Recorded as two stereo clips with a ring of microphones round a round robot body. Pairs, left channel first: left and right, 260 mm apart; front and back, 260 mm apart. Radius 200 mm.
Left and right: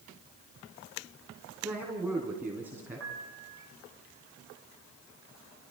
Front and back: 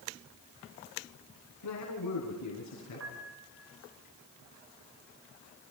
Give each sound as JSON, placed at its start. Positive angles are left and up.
{"t": 1.6, "sound": "a man speaking", "azimuth_deg": -5, "distance_m": 4.5}
{"t": 3.0, "sound": "a piano", "azimuth_deg": -140, "distance_m": 4.5}